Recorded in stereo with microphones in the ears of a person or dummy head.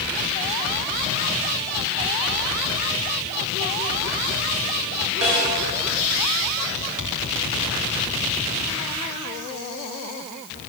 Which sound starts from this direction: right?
A snare drum, at 5.2 s.